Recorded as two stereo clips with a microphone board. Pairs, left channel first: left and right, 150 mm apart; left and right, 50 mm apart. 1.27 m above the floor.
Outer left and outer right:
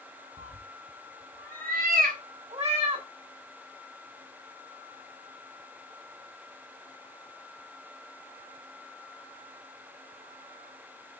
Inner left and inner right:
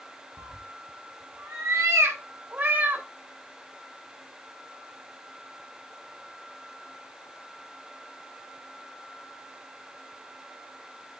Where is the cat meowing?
45° right (ahead or behind), 3 m; by 3.1 s 40° right (ahead or behind), 3 m.